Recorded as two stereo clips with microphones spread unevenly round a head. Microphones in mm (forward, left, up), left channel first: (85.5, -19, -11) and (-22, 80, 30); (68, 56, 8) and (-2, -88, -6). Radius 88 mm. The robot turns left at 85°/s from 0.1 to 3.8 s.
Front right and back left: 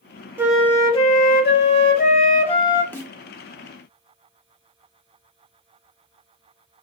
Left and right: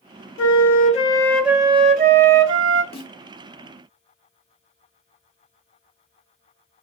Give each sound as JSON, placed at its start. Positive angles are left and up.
{"t": 0.4, "sound": "a flute", "azimuth_deg": 60, "distance_m": 0.5}
{"t": 2.9, "sound": "a snare drum", "azimuth_deg": 50, "distance_m": 0.9}